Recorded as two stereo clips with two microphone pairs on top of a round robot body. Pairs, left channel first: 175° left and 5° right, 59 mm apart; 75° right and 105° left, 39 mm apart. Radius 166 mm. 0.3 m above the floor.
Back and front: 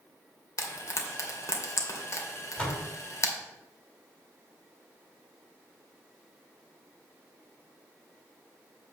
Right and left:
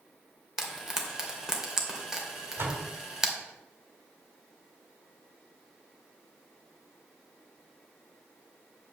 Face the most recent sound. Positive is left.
turn(degrees=110)